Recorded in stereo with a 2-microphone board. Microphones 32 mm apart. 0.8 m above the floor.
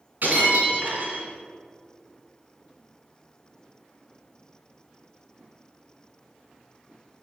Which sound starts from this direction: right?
Breaking glass, at 0.2 s.